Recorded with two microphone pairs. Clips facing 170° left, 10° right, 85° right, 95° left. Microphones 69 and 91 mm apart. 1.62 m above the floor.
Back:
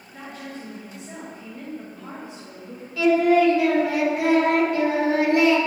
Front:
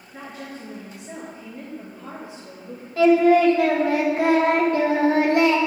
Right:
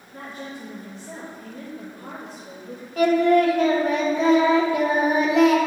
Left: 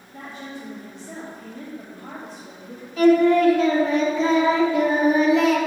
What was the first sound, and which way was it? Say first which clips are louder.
A woman speaking: even, even; 80° right.